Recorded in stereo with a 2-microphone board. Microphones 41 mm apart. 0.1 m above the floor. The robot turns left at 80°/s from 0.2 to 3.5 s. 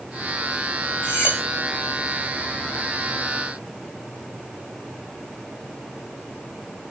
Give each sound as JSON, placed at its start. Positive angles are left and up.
{"t": 1.0, "sound": "cutlery clinking", "azimuth_deg": 90, "distance_m": 5.5}